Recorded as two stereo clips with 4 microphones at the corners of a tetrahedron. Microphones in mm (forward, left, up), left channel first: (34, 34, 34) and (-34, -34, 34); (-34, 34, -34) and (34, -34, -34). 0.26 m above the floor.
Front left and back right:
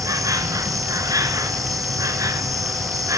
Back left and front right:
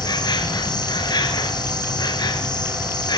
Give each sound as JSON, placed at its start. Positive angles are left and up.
{"t": 0.0, "sound": "an insect", "azimuth_deg": 175, "distance_m": 1.6}